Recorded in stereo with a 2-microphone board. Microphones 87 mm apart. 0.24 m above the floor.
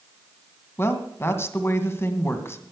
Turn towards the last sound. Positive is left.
turn(degrees=30)  # may be behind; listen again after turning